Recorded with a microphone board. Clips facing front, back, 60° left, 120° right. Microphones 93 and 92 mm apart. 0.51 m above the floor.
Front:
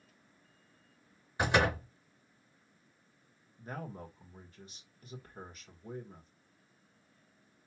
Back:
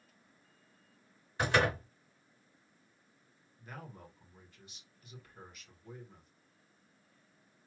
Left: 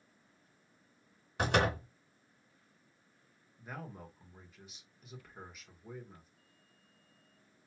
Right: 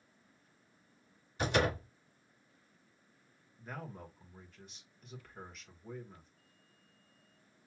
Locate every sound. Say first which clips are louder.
1.4 s a door slam: front 1 dB, left 1 dB; 75° left, 4 m
3.6 s a man speaking: front 6 dB, even; 25° right, 1.7 m